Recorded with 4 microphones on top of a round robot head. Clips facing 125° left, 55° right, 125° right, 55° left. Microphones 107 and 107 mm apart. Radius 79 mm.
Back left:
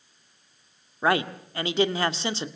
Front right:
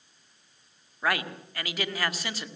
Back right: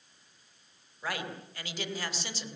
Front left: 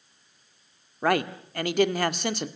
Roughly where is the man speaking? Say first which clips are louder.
Back left 6 dB, front left 13 dB; left.